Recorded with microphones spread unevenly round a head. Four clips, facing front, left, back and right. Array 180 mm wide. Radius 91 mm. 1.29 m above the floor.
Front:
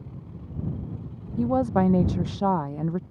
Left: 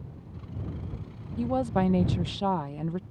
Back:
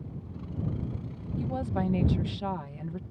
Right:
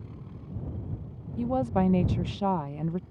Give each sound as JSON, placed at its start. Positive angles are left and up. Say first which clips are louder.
{"t": 1.4, "sound": "a woman speaking", "louder": "even, front 9 dB", "azimuth_deg": 10}